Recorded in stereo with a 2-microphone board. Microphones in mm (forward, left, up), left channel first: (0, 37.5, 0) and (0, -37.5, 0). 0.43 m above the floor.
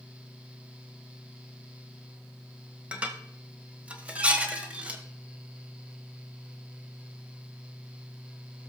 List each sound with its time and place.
2.9 s dishes clattering: 20° right (ahead or behind), 1.4 m